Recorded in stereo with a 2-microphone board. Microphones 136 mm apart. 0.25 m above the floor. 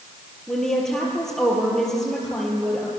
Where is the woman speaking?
5° left (ahead or behind), 6.5 m.